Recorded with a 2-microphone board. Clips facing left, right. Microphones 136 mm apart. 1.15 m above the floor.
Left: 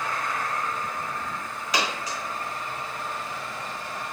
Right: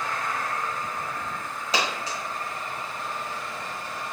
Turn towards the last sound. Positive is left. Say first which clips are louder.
# even
turn(degrees=-30)  # may be behind; listen again after turning